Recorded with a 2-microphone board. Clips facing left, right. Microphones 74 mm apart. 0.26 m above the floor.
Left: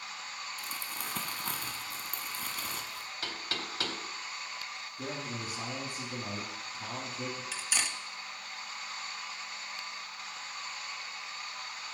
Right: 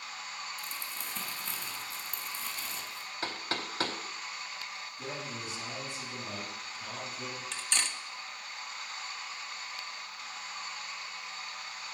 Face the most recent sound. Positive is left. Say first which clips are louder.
# even
turn(degrees=5)  # may be behind; listen again after turning